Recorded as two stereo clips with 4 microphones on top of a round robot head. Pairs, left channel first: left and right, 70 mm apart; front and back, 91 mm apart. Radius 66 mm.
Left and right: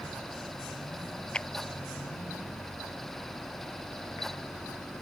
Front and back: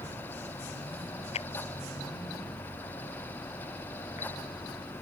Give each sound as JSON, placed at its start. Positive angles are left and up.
{"t": 1.3, "sound": "a clap", "azimuth_deg": 15}